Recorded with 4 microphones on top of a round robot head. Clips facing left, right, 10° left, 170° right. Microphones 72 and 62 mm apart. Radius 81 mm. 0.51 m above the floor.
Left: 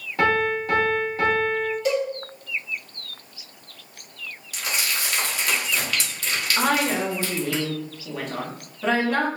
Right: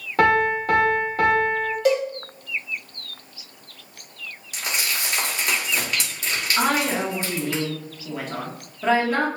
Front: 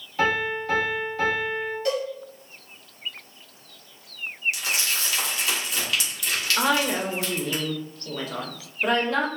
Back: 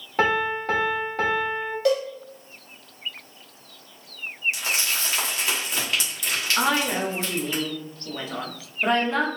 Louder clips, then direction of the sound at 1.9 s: Right 4 dB, back 5 dB; 135° right.